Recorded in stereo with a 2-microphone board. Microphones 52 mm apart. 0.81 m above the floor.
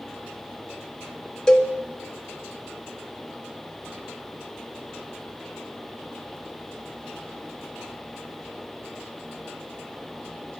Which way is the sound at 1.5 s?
15° left (ahead or behind).